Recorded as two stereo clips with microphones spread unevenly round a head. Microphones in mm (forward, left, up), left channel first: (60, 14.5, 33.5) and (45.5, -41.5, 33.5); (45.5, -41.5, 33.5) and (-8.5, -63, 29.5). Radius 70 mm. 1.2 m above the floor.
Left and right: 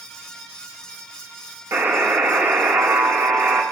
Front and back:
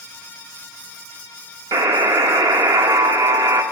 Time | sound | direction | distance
1.7 | a buzzer | 165° right | 1.7 m